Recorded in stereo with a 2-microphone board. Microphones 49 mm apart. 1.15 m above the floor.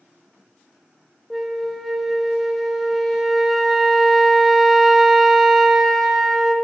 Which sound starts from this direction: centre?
A flute, at 1.3 s.